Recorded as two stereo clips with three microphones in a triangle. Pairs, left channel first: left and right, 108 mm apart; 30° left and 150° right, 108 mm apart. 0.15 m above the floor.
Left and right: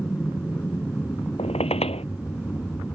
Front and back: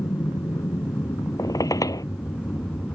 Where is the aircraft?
35° left; by 3.0 s 65° left.